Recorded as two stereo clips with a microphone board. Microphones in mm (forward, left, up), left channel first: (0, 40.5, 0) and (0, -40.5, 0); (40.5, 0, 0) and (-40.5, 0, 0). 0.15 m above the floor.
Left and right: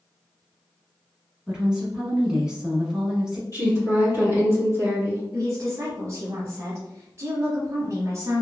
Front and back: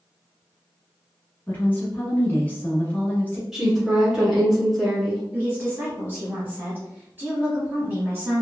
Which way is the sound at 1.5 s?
25° right.